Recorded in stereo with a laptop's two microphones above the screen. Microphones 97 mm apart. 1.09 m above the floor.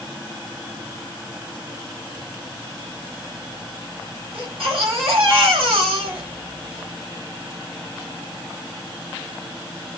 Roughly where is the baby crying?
Right.